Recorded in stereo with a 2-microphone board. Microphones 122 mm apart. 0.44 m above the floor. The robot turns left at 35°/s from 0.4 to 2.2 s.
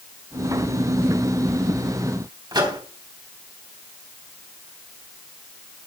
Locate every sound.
2.5 s a microwave: 35° right (ahead or behind), 3 m